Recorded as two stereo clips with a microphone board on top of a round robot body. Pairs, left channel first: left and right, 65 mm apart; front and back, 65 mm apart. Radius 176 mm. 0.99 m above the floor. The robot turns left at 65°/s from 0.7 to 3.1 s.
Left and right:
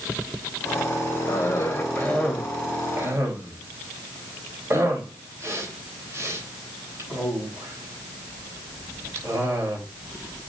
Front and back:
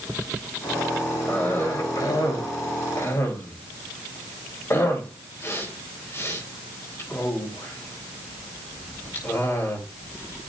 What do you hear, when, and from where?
1.3 s a cough: 70° left, 3.5 m; by 9.8 s 45° right, 3.5 m